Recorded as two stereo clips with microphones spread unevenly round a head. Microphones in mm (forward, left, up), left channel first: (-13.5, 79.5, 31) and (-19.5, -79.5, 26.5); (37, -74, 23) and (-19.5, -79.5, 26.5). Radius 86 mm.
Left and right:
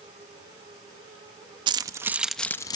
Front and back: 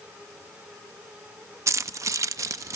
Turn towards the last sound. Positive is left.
turn(degrees=145)